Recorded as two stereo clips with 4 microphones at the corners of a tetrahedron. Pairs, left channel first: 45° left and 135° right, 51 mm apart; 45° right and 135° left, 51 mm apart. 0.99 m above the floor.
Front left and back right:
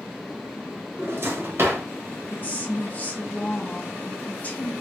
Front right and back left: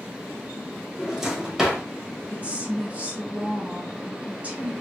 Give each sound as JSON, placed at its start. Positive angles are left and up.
{"t": 1.0, "sound": "a drawer", "azimuth_deg": -145, "distance_m": 1.1}
{"t": 2.3, "sound": "a woman speaking", "azimuth_deg": 85, "distance_m": 0.8}